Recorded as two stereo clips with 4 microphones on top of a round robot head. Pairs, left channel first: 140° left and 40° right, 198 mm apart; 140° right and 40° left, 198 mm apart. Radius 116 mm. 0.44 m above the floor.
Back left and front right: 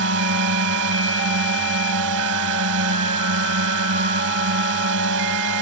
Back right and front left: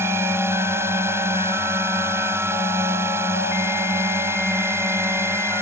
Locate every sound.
0.0 s a drone: 35° right